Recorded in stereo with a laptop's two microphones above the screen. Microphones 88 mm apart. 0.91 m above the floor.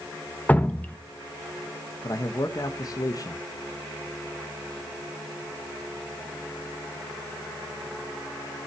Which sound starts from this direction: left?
A man speaking, at 2.0 s.